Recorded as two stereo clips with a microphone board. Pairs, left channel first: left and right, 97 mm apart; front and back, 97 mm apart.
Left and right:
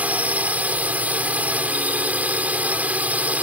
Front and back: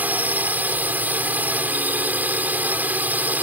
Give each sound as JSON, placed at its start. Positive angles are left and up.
{"t": 0.0, "sound": "a drone", "azimuth_deg": -140}